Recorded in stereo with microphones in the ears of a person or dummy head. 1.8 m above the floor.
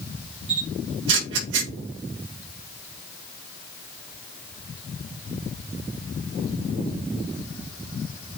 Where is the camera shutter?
80° right, 5 m.